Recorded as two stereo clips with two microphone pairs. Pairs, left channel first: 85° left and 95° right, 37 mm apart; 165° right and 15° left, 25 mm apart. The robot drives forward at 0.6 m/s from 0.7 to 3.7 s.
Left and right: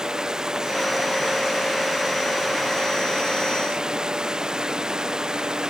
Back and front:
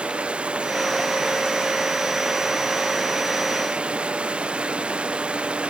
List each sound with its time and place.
0.0 s running water: 20° right; by 5.7 s 25° right